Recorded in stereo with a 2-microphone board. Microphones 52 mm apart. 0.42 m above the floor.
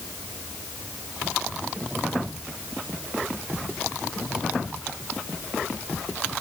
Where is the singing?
No singing in this recording.